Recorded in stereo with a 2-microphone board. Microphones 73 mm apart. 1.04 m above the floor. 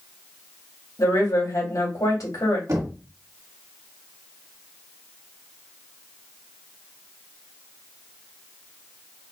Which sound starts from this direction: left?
A woman speaking, at 1.0 s.